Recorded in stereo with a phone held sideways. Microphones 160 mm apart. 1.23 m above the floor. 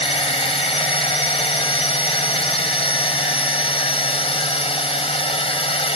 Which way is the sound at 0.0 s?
35° left (ahead or behind).